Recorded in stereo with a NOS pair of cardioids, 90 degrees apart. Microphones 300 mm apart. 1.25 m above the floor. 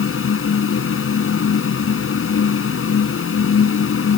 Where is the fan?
45° left.